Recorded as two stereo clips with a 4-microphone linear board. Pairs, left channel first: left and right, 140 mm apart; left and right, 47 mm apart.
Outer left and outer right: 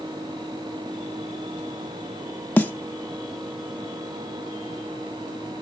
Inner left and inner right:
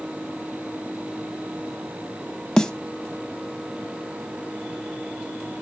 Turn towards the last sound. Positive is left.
turn(degrees=10)  # may be behind; listen again after turning